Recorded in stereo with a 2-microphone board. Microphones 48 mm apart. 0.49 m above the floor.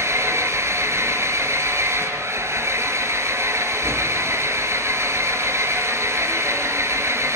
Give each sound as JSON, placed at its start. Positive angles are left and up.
{"t": 0.0, "sound": "an engine running", "side_deg": -70, "distance_m": 3.0}